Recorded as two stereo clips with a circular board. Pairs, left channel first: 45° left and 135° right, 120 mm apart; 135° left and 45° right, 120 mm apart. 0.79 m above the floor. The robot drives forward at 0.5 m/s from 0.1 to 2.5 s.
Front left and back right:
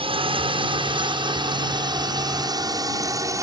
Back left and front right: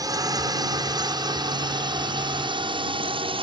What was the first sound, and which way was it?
A drone, 100° right.